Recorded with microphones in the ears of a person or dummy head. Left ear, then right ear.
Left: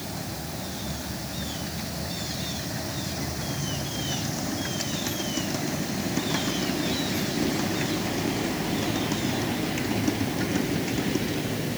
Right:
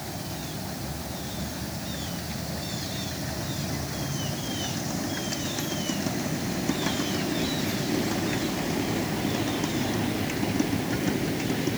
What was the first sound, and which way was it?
Only background noise.